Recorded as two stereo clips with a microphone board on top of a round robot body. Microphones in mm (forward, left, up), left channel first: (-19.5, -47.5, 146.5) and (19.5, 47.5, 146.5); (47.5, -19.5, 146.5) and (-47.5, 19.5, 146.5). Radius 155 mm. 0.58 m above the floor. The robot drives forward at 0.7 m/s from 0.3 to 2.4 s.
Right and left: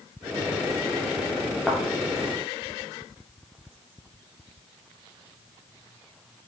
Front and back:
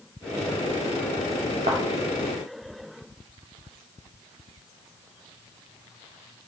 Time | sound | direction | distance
1.7 | a thud | 155° left | 0.5 m